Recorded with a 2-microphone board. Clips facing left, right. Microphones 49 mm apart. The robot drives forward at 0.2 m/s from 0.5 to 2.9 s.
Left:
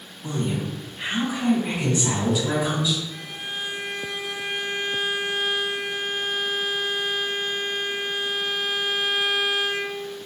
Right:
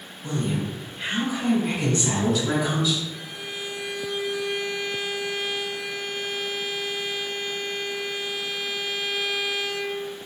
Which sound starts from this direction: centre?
A woman speaking, at 0.2 s.